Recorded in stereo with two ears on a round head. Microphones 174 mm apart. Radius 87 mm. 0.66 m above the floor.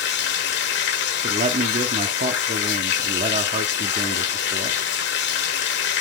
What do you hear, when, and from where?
0.0 s running water: 65° left (ahead or behind), 1.4 m
1.2 s a man speaking: 35° right (ahead or behind), 0.9 m